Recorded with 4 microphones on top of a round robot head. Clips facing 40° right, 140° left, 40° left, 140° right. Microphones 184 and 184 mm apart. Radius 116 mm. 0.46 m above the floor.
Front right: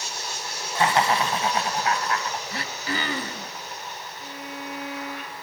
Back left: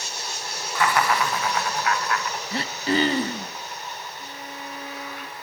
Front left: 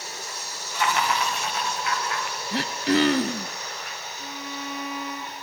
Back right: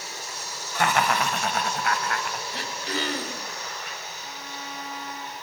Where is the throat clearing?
75° left, 0.6 m.